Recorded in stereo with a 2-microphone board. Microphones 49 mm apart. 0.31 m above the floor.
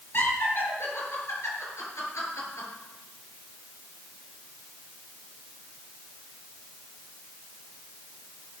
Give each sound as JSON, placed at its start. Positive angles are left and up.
{"t": 0.1, "sound": "laughter", "side_deg": 50, "distance_m": 4.5}